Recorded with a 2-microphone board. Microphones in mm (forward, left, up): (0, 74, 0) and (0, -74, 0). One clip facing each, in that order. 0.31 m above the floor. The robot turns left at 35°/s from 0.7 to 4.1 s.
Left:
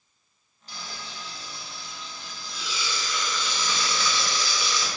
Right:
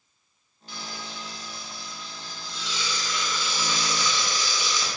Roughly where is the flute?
I don't hear a flute.